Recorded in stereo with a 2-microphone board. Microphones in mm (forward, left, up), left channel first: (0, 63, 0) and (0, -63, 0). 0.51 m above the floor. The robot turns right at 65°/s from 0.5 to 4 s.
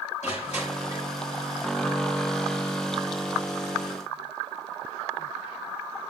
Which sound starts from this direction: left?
Crushing, at 0.2 s.